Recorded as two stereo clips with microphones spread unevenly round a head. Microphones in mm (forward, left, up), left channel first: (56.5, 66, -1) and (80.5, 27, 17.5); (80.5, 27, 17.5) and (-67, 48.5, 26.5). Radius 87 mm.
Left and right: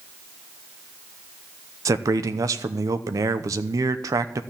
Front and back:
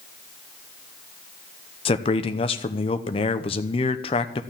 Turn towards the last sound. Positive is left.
turn(degrees=-65)